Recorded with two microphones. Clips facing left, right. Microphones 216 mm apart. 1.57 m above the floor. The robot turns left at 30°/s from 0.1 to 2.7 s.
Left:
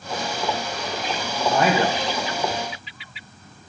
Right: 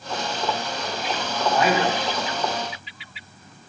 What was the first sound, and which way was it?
A man speaking, 45° left (ahead or behind).